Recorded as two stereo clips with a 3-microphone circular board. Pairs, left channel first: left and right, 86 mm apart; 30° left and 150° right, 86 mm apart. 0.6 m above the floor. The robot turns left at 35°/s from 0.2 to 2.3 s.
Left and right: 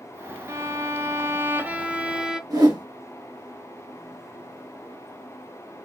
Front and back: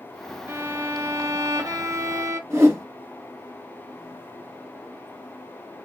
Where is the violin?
105° right, 0.7 m; by 2.4 s 170° right, 0.7 m.